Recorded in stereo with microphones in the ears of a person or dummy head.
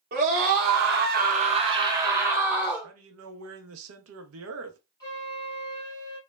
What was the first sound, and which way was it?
A scream, 35° right (ahead or behind).